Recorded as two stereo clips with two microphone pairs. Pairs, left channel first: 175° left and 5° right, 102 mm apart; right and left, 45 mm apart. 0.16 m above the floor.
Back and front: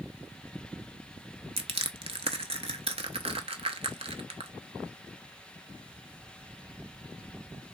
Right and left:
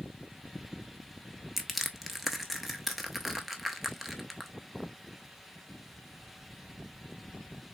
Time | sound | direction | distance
1.6 | crushing | 5° left | 0.5 m